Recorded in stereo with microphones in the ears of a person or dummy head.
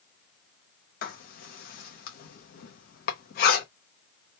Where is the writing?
45° left (ahead or behind), 0.7 m.